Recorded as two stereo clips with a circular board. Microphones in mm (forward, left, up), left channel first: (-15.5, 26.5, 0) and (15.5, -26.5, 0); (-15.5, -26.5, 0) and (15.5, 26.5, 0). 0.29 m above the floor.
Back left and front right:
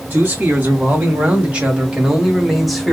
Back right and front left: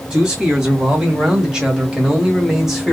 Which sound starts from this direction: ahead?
A man speaking, at 0.1 s.